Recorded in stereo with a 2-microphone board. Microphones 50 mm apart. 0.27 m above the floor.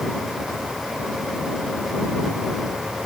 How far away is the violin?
I don't hear a violin.